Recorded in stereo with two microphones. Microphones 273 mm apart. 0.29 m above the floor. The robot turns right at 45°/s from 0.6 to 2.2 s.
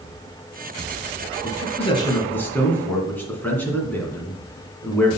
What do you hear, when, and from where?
1.4 s a man speaking: 140° left, 2.5 m; by 5.1 s 175° left, 2.5 m